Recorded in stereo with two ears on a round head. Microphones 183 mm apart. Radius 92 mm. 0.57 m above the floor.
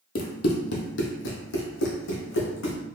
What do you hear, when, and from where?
0.1 s running footsteps: 45° left (ahead or behind), 0.8 m; by 2.8 s 70° left (ahead or behind), 1.9 m